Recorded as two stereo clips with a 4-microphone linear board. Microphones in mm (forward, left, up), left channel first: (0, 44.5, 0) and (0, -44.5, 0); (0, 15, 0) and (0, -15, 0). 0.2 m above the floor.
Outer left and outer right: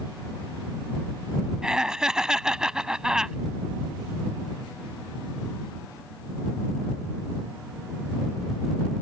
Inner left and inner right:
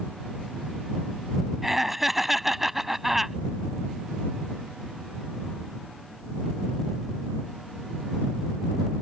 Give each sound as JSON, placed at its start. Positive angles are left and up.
{"t": 1.6, "sound": "laughter", "side_deg": -10}